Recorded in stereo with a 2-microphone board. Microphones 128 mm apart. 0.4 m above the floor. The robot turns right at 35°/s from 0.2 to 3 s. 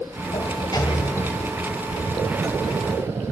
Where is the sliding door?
130° left, 1.6 m; by 3.2 s 140° right, 1.6 m.